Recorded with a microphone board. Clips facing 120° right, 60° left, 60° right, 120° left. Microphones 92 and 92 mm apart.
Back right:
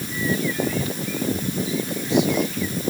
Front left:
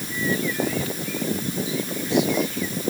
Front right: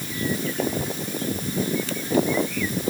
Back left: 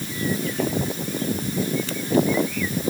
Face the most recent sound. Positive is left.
No sound to turn to.